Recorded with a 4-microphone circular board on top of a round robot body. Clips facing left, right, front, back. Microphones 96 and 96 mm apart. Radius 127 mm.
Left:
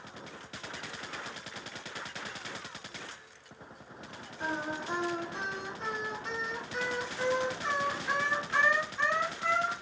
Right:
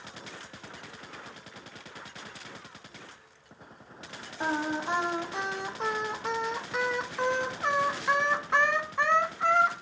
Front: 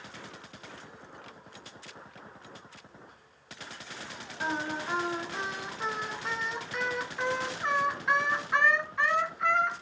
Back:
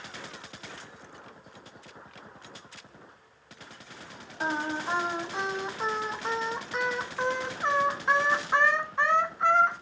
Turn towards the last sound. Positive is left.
turn(degrees=-120)